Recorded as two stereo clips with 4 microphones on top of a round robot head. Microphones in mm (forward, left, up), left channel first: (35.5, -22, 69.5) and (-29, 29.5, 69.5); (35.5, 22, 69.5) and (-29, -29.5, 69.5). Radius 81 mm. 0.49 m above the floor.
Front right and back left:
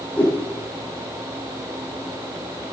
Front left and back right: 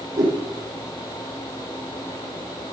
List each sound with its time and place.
0.2 s a whoosh: 110° right, 8.5 m